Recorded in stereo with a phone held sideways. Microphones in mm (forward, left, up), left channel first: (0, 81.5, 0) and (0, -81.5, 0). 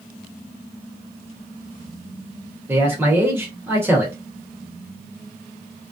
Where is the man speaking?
15° right (ahead or behind), 1.2 m.